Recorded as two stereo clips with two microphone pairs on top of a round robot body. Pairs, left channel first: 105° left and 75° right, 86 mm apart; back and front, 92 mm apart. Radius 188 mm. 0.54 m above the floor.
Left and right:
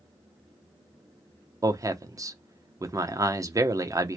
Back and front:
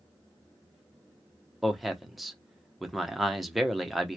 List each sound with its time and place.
1.6 s a man speaking: 85° right, 0.8 m